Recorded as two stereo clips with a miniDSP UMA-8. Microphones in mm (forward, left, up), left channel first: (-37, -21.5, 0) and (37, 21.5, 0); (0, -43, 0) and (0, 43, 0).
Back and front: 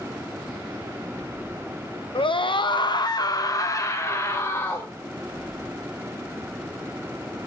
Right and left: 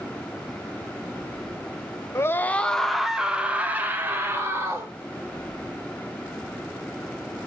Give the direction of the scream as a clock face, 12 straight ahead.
5 o'clock.